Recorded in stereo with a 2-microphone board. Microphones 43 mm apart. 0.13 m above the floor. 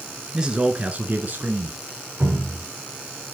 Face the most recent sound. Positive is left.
turn(degrees=-55)  # may be behind; listen again after turning